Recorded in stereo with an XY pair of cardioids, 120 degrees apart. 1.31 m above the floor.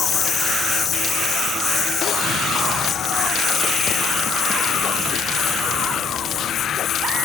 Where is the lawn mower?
40° left; by 7.3 s 50° left.